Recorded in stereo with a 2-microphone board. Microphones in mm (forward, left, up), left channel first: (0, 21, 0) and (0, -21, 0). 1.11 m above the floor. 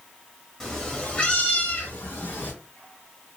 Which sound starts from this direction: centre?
A cat meowing, at 0.6 s.